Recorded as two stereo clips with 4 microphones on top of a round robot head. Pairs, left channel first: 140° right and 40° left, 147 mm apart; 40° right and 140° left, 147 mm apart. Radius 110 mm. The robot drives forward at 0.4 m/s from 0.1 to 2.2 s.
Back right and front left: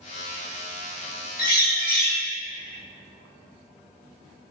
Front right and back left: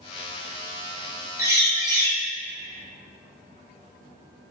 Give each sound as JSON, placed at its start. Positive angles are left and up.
{"t": 1.4, "sound": "a bird", "azimuth_deg": -150, "distance_m": 1.0}